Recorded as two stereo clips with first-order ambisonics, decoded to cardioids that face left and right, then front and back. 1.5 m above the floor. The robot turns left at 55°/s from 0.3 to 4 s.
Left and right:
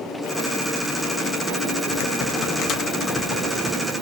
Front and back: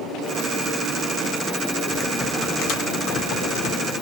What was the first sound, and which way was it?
Typing on a keyboard, 90° left.